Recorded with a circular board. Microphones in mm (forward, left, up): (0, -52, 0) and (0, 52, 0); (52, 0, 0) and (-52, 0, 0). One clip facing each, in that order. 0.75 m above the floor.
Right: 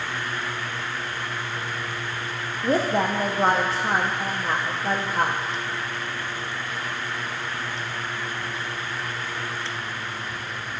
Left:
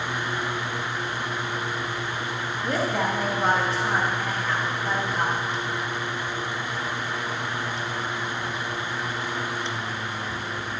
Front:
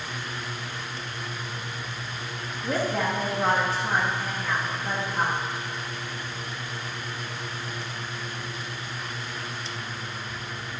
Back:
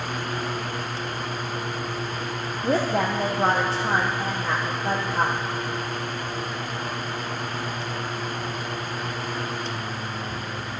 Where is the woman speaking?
135° right, 0.8 m.